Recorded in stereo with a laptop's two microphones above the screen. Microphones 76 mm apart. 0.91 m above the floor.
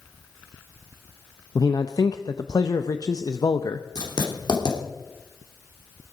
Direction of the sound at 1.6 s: 55° left (ahead or behind).